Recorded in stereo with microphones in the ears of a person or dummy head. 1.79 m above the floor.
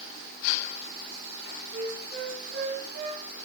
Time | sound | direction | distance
1.7 | a flute | 65° right (ahead or behind) | 3 m